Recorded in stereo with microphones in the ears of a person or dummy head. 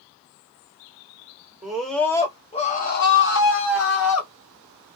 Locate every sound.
1.6 s a scream: 5° right (ahead or behind), 0.8 m; by 4.3 s 70° left (ahead or behind), 1.2 m